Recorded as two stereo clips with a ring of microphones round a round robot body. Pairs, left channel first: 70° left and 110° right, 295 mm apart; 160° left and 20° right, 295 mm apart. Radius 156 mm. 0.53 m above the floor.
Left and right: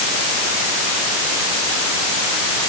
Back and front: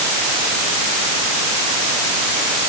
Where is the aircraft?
No aircraft in this recording.